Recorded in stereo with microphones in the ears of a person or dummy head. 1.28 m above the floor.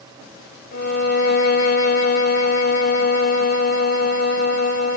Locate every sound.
0.7 s a violin: 55° left (ahead or behind), 1.9 m